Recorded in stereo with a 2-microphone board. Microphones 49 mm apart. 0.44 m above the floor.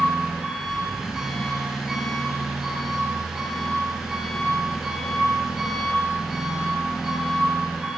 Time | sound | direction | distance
0.0 | an engine running | 10° right (ahead or behind) | 8.5 m